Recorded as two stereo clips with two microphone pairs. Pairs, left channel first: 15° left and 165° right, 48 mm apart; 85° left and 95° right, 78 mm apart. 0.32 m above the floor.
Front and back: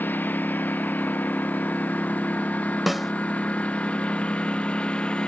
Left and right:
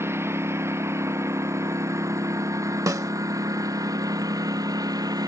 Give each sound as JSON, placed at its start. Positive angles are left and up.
{"t": 0.0, "sound": "a lawn mower", "azimuth_deg": -35}
{"t": 2.9, "sound": "a snare drum", "azimuth_deg": -80}